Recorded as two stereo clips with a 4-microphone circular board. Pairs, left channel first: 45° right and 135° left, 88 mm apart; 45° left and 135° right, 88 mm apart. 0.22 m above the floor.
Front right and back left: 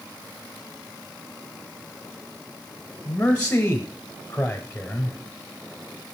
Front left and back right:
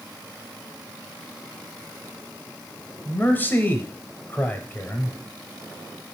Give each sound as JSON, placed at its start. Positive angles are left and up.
{"t": 3.0, "sound": "a man speaking", "azimuth_deg": 5, "distance_m": 1.0}